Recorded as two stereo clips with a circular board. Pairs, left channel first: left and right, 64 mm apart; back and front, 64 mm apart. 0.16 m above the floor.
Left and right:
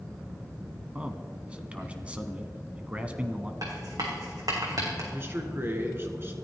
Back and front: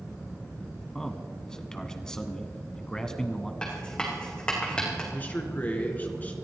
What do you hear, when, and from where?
0.9 s a man speaking: 120° right, 1.0 m
3.6 s writing: 105° right, 3.5 m
5.1 s a man speaking: 130° right, 2 m